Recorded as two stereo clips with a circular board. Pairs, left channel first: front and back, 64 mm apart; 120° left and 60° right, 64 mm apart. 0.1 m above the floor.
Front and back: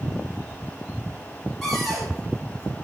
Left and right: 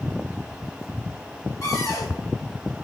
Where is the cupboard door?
90° left, 6.5 m.